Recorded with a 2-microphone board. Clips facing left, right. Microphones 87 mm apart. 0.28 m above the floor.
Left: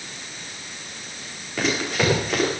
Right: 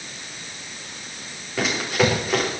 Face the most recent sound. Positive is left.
turn(degrees=-5)  # may be behind; listen again after turning